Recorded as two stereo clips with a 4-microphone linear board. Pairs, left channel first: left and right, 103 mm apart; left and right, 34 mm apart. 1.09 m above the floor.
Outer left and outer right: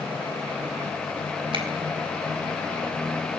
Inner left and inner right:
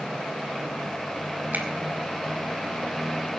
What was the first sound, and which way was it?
A finger snap, 55° right (ahead or behind).